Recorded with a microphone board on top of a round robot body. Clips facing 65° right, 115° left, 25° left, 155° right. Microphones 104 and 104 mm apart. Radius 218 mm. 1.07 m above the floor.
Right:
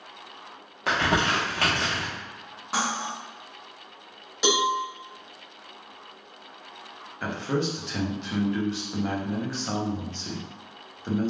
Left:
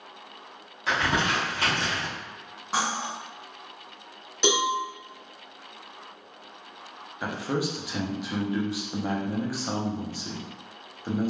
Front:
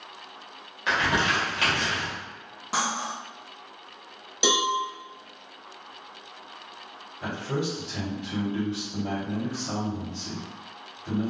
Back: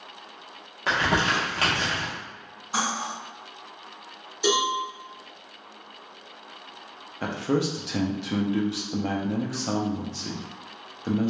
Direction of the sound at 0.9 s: 105° right.